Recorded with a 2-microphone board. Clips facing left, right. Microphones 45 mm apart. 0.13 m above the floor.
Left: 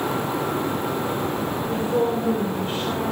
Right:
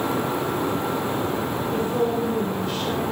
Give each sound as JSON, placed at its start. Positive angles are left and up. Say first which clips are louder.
{"t": 1.7, "sound": "a woman speaking", "louder": "left 1 dB", "side_deg": 25, "distance_m": 6.0}